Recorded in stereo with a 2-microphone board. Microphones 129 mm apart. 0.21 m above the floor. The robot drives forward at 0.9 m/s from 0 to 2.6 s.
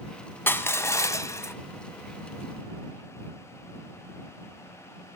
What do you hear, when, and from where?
0.5 s crushing: 15° left (ahead or behind), 0.9 m; by 1.5 s 20° left (ahead or behind), 0.7 m